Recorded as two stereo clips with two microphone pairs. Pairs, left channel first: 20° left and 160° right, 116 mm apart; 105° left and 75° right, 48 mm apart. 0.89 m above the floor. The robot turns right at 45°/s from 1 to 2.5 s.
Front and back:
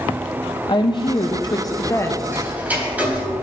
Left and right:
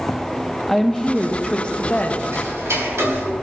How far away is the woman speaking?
About 0.9 m.